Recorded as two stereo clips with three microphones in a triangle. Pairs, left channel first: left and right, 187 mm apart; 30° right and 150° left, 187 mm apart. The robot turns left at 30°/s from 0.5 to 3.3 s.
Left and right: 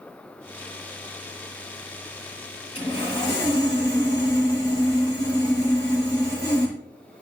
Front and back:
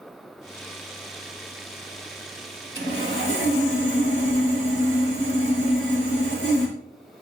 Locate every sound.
2.8 s sawing: 35° left, 5 m; by 6.8 s 15° left, 5 m